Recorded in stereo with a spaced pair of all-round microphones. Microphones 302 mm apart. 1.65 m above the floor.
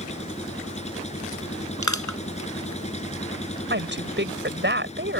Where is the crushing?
70° left (ahead or behind).